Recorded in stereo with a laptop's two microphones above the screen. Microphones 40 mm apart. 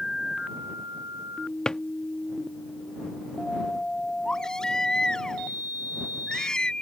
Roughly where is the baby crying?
Left.